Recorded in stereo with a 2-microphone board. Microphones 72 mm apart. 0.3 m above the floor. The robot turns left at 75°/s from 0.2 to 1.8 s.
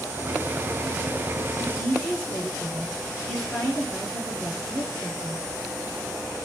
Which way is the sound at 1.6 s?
20° left (ahead or behind).